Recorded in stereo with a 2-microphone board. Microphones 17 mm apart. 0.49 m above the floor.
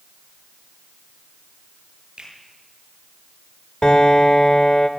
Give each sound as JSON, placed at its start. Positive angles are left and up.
{"t": 2.2, "sound": "a finger snap", "side_deg": -55, "distance_m": 9.0}
{"t": 3.8, "sound": "a piano", "side_deg": 50, "distance_m": 1.8}